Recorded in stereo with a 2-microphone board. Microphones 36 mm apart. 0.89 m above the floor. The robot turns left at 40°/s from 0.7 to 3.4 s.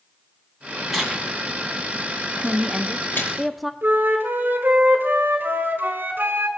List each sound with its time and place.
0.9 s tearing paper: 5° left (ahead or behind), 2.5 m; by 3.3 s 75° left (ahead or behind), 2.5 m
2.4 s a woman speaking: 140° right, 0.6 m; by 3.7 s straight behind, 0.6 m
3.8 s a flute: 65° right (ahead or behind), 1.5 m